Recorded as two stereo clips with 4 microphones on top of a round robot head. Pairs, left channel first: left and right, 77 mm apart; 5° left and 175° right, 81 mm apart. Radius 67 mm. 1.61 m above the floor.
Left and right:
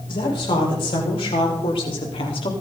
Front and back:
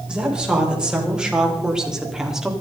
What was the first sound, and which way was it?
A woman speaking, 110° left.